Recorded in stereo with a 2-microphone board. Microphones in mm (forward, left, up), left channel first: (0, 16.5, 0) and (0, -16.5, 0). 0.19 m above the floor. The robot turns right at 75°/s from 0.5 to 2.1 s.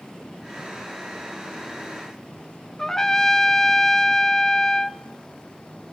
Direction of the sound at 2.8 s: 15° left (ahead or behind).